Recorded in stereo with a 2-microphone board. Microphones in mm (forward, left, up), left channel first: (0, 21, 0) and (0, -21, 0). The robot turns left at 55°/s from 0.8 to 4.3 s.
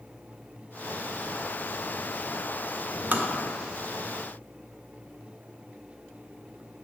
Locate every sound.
3.1 s tapping: 45° right (ahead or behind), 0.9 m; by 3.3 s 55° right (ahead or behind), 0.9 m